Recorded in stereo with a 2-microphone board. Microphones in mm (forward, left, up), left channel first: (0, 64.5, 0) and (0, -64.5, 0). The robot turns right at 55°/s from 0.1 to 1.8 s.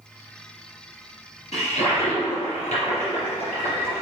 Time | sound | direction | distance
1.5 | a toilet flushing | 55° left (ahead or behind) | 3 m